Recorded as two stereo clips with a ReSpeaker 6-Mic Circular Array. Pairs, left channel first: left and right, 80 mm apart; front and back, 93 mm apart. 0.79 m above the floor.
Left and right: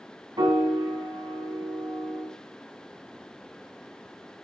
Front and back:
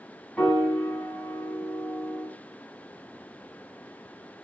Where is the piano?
85° right, 2.5 m.